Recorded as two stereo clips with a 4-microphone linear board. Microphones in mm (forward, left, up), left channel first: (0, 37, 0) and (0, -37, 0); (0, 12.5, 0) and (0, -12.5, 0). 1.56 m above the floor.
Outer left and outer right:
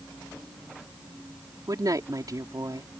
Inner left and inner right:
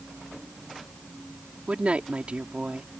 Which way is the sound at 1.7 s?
55° right (ahead or behind).